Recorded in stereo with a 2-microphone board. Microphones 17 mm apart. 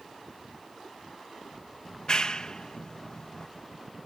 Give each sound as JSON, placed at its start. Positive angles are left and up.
{"t": 1.9, "sound": "a clap", "side_deg": 45}